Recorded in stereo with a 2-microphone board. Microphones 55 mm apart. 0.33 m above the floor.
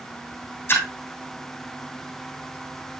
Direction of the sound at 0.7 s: 45° left (ahead or behind).